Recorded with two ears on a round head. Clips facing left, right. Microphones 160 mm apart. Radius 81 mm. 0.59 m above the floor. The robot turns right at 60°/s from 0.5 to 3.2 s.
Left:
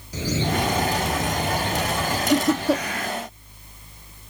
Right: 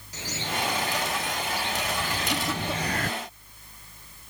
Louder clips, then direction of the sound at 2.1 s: Left 10 dB; 80° left.